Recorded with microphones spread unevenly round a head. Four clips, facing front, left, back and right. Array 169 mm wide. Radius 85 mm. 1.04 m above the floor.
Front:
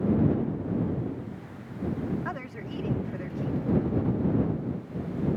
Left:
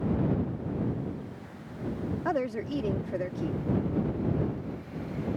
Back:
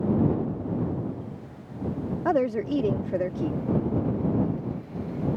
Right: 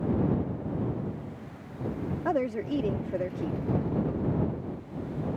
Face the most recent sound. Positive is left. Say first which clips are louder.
# right 2 dB, back 13 dB
turn(degrees=-170)